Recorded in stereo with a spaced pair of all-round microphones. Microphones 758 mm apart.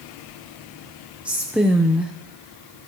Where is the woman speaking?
Centre (ahead or behind), 0.6 m.